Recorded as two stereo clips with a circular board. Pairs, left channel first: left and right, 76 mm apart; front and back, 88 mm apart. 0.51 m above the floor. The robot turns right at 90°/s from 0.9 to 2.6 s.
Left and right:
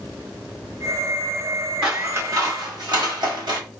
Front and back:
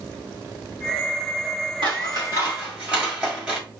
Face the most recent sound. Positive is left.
turn(degrees=-100)